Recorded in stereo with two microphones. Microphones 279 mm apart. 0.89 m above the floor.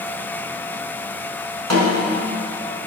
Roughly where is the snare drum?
Right.